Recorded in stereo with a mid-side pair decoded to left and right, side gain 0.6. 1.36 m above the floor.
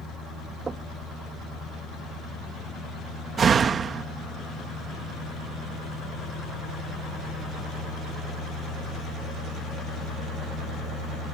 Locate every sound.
0.7 s knocking: 35° right
3.4 s a door slam: 40° right